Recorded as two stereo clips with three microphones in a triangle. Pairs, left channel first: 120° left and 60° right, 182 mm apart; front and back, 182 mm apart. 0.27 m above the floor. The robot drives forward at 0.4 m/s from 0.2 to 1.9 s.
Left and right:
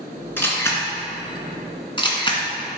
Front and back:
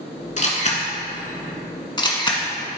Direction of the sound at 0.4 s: 45° left.